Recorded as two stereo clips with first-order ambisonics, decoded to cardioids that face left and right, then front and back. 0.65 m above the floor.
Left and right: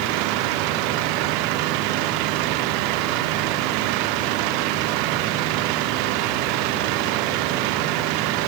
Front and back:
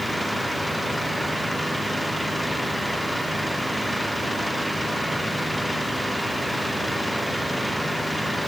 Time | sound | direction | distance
0.0 | an engine running | 90° right | ?